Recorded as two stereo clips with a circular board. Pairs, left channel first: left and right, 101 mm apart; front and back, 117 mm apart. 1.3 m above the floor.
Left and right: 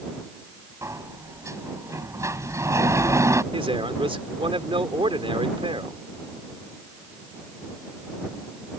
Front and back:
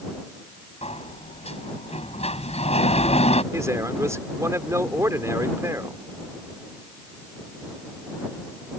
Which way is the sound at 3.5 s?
115° right.